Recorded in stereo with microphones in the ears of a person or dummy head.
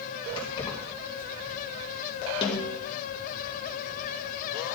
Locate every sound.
0.4 s keys jangling: 25° left (ahead or behind), 3.5 m
2.4 s a snare drum: 30° left (ahead or behind), 2.5 m